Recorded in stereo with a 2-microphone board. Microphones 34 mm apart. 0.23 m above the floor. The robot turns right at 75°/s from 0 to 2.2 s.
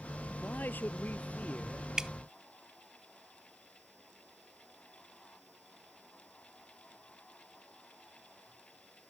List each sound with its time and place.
0.4 s a man speaking: 55° left; by 1.9 s 165° left
2.0 s dripping: 20° right (ahead or behind)